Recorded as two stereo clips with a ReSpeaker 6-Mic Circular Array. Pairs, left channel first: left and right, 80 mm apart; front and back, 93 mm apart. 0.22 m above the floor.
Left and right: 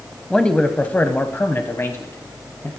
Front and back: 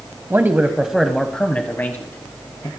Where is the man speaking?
160° left, 1.0 m; by 2.7 s 45° left, 1.6 m.